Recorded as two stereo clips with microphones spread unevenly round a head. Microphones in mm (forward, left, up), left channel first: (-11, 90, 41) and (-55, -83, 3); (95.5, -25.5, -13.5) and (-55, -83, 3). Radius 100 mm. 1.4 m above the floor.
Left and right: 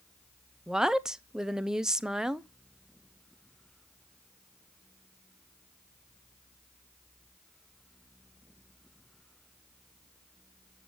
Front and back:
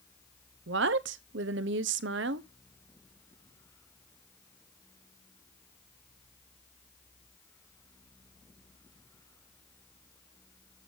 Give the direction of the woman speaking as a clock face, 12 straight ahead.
6 o'clock.